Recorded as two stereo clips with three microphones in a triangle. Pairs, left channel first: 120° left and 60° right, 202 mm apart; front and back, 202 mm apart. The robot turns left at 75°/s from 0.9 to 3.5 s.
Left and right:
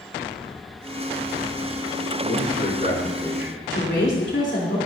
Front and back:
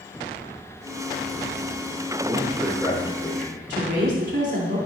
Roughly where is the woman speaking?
Behind left.